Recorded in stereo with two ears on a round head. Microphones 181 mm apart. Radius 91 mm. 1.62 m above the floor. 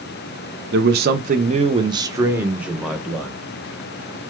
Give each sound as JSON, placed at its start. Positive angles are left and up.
{"t": 0.7, "sound": "a man speaking", "side_deg": -55, "distance_m": 0.7}